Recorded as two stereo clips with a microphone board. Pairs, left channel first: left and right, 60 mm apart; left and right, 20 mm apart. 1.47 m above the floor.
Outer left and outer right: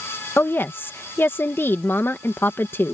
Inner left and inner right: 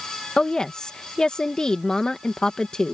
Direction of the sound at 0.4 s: 40° left (ahead or behind).